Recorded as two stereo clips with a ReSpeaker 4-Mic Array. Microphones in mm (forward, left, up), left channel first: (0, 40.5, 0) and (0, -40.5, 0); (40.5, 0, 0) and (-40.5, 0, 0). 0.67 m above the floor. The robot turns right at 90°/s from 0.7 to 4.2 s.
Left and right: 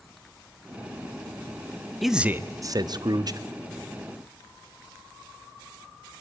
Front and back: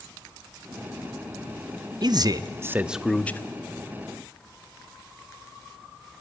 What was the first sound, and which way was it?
A man speaking, 175° left.